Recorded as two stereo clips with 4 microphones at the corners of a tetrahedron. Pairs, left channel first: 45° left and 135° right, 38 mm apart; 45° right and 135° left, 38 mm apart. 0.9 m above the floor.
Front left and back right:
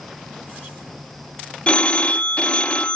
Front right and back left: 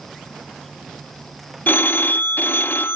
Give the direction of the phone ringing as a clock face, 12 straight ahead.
12 o'clock.